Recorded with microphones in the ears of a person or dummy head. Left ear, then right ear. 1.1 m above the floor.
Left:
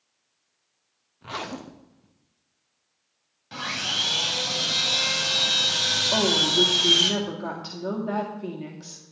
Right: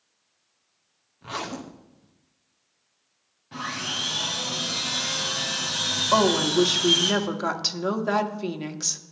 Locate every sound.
1.2 s a zipper: centre (ahead or behind), 0.6 m
3.5 s sawing: 55° left (ahead or behind), 3 m
6.1 s a woman speaking: 45° right (ahead or behind), 1.6 m